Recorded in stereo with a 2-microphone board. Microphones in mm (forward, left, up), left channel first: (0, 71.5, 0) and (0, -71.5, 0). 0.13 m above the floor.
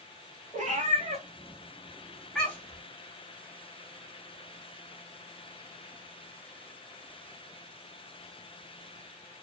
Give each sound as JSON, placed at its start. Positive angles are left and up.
{"t": 0.5, "sound": "a cat meowing", "side_deg": -60, "distance_m": 1.4}